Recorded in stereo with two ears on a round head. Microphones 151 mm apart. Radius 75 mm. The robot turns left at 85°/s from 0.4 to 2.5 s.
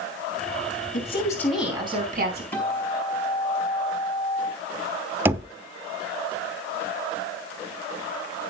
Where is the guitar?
10° left (ahead or behind), 5 m.